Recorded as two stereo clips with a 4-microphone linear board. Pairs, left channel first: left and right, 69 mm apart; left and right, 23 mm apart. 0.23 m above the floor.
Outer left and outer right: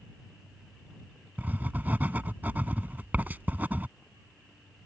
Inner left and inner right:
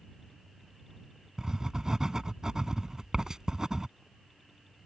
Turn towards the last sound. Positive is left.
turn(degrees=-25)  # may be behind; listen again after turning